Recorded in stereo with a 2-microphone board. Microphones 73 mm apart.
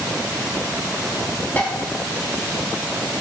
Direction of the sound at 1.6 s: 25° left (ahead or behind).